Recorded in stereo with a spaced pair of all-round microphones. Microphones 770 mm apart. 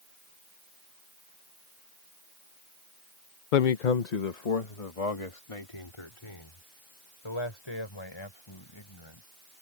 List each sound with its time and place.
3.5 s a man speaking: 80° left; by 9.3 s 35° left (ahead or behind)